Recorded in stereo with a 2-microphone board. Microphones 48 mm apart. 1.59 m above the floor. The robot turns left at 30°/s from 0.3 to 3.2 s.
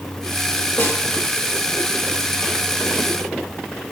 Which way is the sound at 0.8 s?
50° left (ahead or behind).